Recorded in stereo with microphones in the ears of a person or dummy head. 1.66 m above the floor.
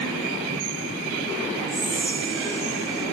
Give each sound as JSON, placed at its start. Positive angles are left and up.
{"t": 1.7, "sound": "whispering", "side_deg": -70, "distance_m": 6.0}